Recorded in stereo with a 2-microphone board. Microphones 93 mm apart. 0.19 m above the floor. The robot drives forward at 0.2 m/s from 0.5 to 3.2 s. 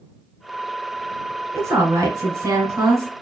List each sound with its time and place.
1.5 s a woman speaking: 30° right (ahead or behind), 1.4 m; by 3.1 s 35° right (ahead or behind), 1.4 m